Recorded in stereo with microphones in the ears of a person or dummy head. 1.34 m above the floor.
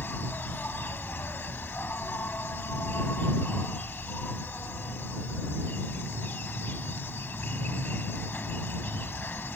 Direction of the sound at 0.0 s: 10° left (ahead or behind).